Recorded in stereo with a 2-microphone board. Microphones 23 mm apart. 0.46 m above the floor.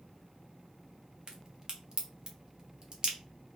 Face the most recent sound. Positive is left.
turn(degrees=-35)  # may be behind; listen again after turning